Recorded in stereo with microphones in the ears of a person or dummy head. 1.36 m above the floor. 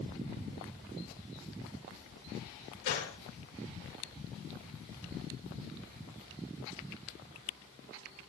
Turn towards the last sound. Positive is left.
turn(degrees=60)  # may be behind; listen again after turning